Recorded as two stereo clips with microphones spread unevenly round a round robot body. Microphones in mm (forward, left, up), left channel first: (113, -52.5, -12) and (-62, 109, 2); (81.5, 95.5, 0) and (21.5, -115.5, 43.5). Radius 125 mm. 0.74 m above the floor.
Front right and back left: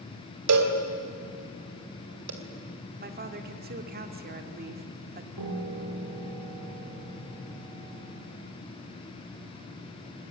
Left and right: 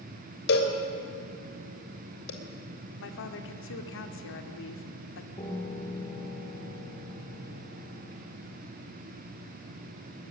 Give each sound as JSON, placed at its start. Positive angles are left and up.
{"t": 0.5, "sound": "a cowbell", "azimuth_deg": 120, "distance_m": 3.0}
{"t": 3.0, "sound": "a woman speaking", "azimuth_deg": 90, "distance_m": 2.0}
{"t": 5.4, "sound": "a piano", "azimuth_deg": 145, "distance_m": 3.0}